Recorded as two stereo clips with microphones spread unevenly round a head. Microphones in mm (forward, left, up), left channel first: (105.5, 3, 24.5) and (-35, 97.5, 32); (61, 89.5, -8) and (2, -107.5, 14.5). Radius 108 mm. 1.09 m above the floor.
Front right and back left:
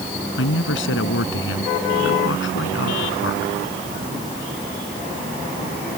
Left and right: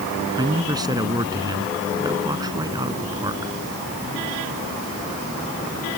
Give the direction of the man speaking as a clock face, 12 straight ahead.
1 o'clock.